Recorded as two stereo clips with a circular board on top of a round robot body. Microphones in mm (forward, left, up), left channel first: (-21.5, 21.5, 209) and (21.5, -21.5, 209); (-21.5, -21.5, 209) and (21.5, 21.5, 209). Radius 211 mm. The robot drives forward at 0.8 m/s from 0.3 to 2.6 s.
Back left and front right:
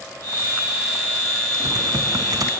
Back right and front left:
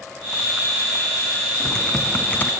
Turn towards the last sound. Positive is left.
turn(degrees=-80)